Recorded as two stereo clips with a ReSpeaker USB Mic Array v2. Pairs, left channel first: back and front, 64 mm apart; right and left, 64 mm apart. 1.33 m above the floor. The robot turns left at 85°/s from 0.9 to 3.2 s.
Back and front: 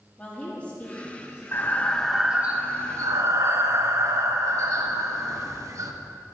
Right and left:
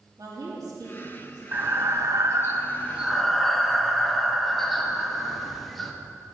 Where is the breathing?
140° left, 0.9 m; by 5.9 s 5° right, 0.9 m.